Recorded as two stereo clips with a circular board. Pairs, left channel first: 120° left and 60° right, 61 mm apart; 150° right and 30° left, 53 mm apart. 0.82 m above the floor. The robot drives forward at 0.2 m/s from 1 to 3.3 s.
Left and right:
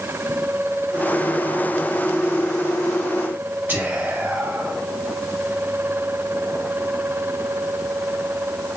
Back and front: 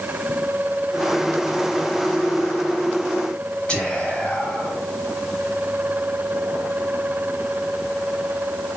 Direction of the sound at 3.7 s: 95° right.